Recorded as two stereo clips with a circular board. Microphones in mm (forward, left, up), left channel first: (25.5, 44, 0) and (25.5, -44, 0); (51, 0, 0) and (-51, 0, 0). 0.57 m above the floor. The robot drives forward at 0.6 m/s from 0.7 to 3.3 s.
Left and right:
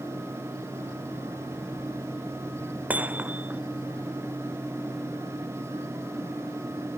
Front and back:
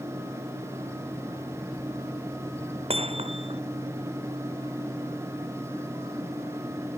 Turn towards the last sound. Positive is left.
turn(degrees=-165)